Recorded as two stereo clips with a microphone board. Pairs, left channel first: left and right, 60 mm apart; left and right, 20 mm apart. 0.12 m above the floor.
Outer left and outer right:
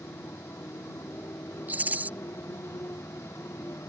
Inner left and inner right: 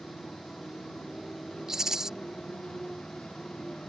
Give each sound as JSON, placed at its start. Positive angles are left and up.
{"t": 0.0, "sound": "a motorcycle", "side_deg": 50}
{"t": 1.7, "sound": "a rattle", "side_deg": -25}